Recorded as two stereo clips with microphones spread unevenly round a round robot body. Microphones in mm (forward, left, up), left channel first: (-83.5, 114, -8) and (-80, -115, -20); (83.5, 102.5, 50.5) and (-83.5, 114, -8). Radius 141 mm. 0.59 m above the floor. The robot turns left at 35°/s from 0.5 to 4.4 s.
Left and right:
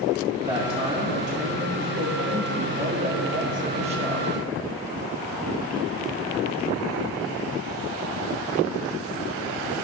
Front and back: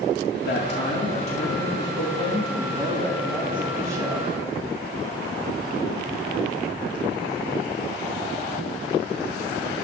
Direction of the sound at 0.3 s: 20° right.